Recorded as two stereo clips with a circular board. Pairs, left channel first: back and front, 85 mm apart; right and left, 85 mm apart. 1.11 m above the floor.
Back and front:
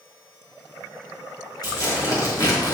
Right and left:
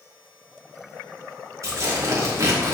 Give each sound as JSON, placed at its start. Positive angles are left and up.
{"t": 1.6, "sound": "tearing paper", "azimuth_deg": 135, "distance_m": 3.0}